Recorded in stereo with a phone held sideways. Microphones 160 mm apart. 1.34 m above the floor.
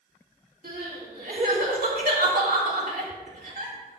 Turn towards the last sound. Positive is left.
turn(degrees=-65)  # may be behind; listen again after turning